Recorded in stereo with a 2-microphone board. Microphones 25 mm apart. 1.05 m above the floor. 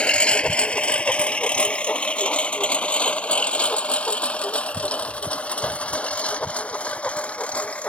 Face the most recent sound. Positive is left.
turn(degrees=60)  # may be behind; listen again after turning